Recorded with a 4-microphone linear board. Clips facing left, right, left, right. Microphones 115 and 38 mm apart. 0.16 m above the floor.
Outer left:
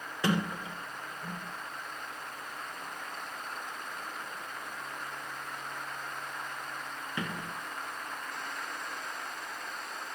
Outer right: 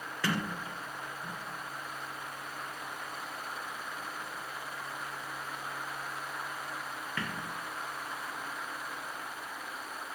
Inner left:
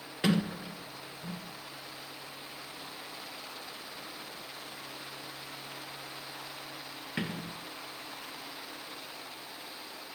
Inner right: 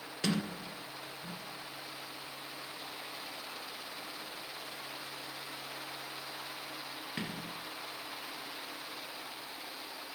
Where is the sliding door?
20° left (ahead or behind), 1.4 m.